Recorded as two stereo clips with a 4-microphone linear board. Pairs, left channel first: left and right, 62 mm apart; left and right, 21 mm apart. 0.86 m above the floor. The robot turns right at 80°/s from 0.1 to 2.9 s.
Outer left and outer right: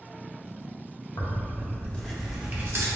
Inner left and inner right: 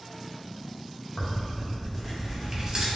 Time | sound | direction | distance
1.2 | tearing paper | 100° left | 0.5 m